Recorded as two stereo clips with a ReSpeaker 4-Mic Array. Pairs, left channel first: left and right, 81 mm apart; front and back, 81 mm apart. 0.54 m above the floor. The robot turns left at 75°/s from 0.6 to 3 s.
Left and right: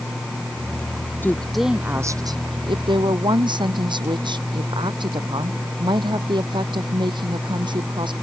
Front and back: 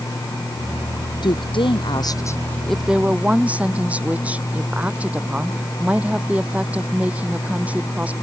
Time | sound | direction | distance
1.2 | a woman speaking | 25° left | ?